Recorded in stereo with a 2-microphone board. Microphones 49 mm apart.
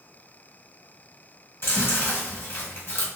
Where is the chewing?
60° left (ahead or behind), 1.5 m.